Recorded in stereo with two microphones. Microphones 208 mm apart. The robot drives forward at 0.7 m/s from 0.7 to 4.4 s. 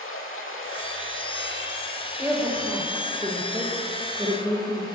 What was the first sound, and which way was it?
Running water, 80° left.